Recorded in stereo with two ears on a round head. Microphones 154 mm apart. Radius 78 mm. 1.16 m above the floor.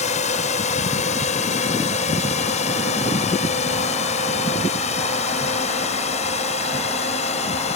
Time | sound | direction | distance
0.0 | a drone | 45° left (ahead or behind) | ?